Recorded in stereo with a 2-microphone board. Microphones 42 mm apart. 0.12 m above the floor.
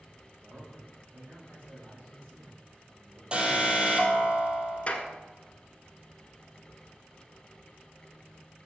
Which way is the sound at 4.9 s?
30° left (ahead or behind).